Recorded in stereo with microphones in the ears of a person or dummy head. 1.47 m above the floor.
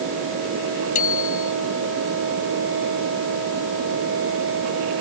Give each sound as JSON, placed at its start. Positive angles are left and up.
{"t": 0.9, "sound": "a bicycle bell", "side_deg": 40}